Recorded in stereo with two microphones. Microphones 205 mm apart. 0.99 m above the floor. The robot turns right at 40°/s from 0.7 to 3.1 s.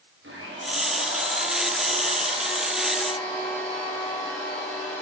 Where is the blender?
85° right, 8 m; by 5.0 s 10° left, 8 m.